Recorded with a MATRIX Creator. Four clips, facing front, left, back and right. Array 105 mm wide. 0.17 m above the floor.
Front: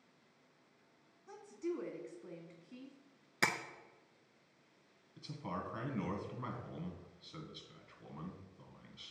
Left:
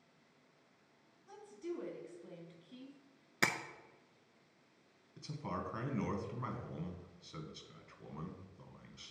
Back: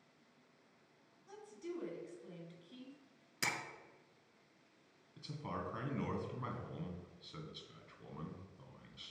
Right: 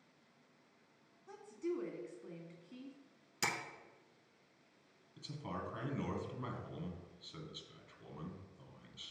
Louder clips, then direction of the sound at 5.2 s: Left 2 dB, front 1 dB; 85° left.